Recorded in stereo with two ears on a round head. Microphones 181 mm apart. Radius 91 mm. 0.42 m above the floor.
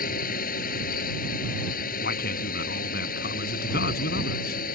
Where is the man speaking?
55° left (ahead or behind).